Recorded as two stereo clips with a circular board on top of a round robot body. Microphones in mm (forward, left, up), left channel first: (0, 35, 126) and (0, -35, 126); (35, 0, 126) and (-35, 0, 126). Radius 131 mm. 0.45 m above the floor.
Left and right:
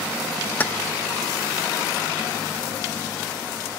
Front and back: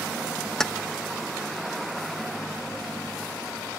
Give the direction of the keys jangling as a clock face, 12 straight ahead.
10 o'clock.